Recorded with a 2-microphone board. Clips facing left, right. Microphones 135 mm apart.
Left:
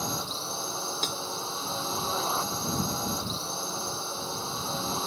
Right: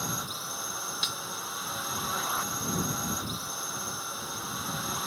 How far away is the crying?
I don't hear crying.